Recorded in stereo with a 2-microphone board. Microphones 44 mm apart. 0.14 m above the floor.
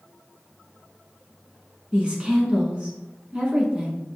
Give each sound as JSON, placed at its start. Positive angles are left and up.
{"t": 1.9, "sound": "a woman speaking", "side_deg": -25, "distance_m": 1.1}